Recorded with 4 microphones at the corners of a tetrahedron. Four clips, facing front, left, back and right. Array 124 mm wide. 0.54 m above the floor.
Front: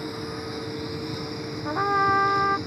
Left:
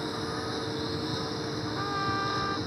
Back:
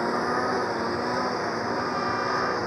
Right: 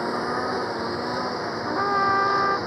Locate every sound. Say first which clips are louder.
0.0 s a lawn mower: right 8 dB, back 8 dB; 140° right
1.6 s a trumpet: right 11 dB, front 4 dB; 45° right